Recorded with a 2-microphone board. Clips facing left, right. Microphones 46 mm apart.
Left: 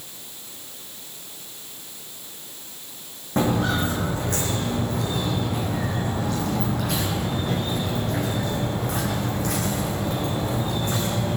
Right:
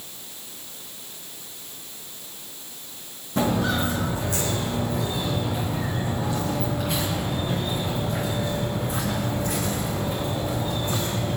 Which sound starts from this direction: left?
Footsteps, at 3.4 s.